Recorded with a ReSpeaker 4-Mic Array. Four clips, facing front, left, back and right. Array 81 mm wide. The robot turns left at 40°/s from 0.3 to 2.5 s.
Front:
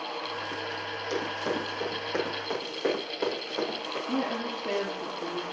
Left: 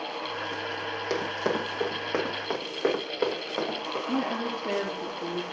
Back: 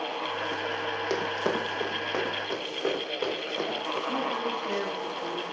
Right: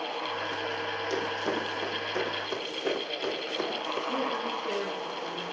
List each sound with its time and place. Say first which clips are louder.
1.1 s running footsteps: left 3 dB, back 1 dB; 140° left, 9 m; by 4.0 s 90° left, 11 m
4.1 s a woman speaking: left 4 dB, front 1 dB; 65° left, 7 m